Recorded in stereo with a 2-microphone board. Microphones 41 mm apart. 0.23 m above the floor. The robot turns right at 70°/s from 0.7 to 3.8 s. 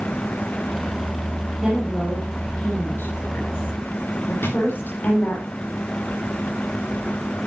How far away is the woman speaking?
About 8 m.